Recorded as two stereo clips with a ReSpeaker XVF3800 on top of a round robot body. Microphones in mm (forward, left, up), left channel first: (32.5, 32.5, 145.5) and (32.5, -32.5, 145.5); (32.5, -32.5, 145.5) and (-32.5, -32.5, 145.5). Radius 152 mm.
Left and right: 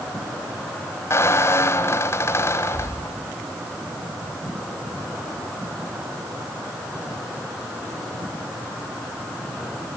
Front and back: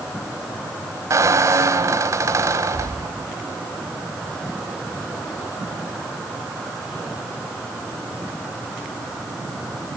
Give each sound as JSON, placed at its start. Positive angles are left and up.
{"t": 1.1, "sound": "a squeak", "azimuth_deg": 140, "distance_m": 1.4}